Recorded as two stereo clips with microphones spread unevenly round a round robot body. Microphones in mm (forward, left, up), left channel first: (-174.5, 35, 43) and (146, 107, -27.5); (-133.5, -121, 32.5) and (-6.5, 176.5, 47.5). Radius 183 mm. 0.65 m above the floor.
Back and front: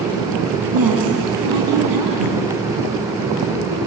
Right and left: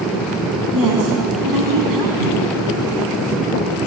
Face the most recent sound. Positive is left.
turn(degrees=30)